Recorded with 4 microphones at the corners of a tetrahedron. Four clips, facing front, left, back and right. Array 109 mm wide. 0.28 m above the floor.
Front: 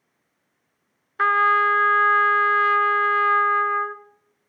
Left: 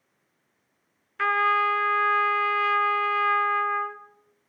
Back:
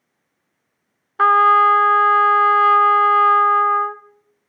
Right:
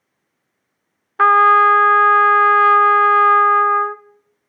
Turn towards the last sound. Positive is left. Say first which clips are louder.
# right 12 dB, back 6 dB
turn(degrees=-115)